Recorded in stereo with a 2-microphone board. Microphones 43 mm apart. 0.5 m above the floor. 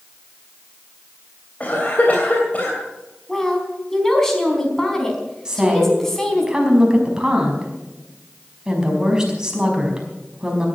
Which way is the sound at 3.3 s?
10° left (ahead or behind).